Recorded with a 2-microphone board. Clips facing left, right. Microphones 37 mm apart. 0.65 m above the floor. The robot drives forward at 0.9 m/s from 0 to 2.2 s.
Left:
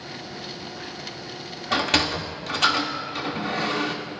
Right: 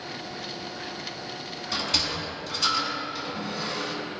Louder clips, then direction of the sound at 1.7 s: Left 7 dB; 55° left (ahead or behind).